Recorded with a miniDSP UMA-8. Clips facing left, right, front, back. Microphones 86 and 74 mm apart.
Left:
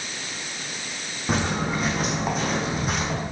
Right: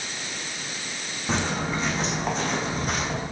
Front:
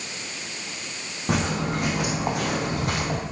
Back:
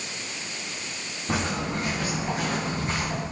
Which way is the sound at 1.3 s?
10° left.